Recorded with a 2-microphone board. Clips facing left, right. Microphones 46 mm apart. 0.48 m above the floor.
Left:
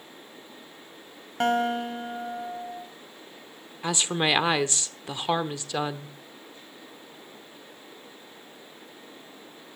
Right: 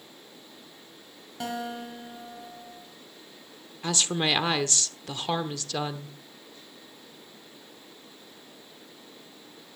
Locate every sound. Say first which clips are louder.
1.4 s a guitar: left 9 dB; 50° left (ahead or behind), 1.9 m
3.8 s a woman speaking: left 2 dB; 20° left (ahead or behind), 0.9 m